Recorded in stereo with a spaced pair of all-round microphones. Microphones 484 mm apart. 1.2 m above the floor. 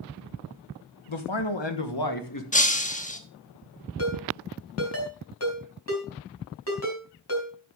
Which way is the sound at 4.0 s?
30° left (ahead or behind).